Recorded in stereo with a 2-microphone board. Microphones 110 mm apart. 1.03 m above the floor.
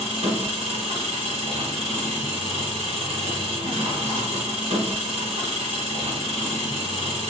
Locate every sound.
0.0 s an engine running: 75° right (ahead or behind), 2.5 m